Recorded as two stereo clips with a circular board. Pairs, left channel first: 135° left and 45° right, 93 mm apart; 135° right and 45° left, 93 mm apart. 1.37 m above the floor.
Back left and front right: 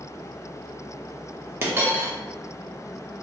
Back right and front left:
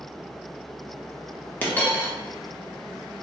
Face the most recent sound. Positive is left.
turn(degrees=-80)